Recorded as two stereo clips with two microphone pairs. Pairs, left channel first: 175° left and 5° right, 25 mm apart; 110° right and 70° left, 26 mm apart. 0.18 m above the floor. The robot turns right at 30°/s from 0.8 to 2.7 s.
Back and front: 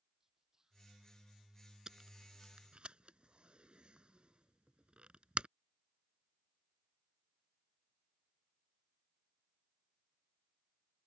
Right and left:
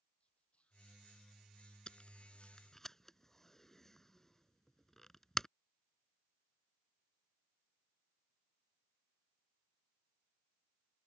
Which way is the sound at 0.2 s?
75° right.